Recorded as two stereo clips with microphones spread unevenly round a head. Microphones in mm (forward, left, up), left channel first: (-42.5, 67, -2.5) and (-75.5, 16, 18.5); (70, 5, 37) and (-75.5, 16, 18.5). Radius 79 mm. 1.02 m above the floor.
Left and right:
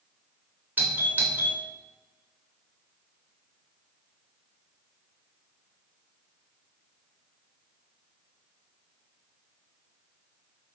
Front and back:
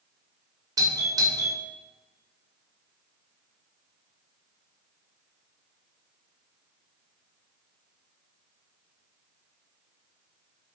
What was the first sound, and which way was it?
A doorbell, 165° left.